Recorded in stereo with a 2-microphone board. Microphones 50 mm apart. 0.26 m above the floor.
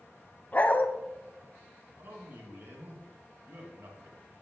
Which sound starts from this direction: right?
A man speaking, at 2.0 s.